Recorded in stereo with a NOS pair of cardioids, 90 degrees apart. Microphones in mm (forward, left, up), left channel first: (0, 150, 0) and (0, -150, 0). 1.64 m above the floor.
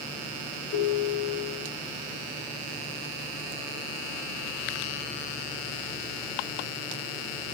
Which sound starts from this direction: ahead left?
A ringtone, at 0.7 s.